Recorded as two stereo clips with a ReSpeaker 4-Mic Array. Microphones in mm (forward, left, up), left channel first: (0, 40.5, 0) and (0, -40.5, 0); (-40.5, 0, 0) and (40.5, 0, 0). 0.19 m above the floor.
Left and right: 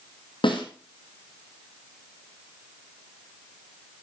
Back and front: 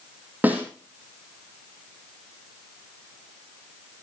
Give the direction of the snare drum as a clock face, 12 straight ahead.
10 o'clock.